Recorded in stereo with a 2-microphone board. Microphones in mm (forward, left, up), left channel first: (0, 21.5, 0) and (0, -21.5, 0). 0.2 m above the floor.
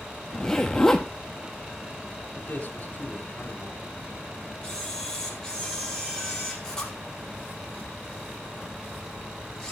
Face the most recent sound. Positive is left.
turn(degrees=15)  # may be behind; listen again after turning